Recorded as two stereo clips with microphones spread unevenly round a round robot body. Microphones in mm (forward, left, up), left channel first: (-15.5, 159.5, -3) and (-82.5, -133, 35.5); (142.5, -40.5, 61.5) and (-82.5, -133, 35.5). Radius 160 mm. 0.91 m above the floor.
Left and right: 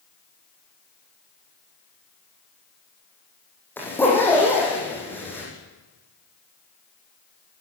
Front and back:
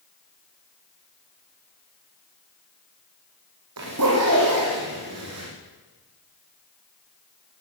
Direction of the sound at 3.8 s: 160° left.